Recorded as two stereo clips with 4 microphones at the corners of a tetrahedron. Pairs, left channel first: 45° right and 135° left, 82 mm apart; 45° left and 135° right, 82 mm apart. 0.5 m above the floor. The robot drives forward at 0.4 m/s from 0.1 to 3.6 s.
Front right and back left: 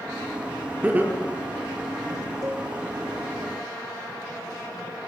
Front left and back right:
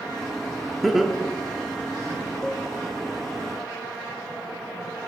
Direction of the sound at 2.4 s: 125° left.